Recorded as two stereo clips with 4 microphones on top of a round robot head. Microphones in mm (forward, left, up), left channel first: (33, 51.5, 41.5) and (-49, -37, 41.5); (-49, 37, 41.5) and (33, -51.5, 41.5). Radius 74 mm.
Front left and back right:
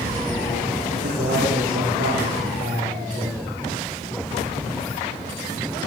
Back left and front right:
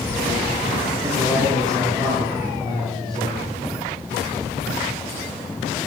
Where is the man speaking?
110° right, 10 m; by 3.5 s 105° right, 11 m.